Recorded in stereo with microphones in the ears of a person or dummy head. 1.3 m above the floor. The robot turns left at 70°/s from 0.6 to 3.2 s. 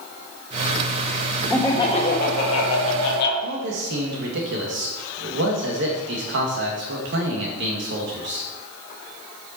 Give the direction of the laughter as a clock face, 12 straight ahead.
6 o'clock.